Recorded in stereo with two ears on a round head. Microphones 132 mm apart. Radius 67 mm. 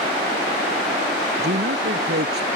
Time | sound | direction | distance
1.4 | a man speaking | 75° right (ahead or behind) | ?